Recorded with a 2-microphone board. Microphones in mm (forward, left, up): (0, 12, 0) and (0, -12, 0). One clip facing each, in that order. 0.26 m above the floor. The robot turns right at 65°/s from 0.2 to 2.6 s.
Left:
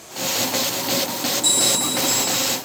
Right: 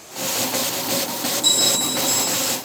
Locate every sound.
1.4 s a bell: 20° right, 2.5 m; by 2.6 s 55° left, 2.5 m